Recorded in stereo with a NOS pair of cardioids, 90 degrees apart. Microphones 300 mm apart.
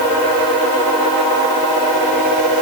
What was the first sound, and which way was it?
Only background noise.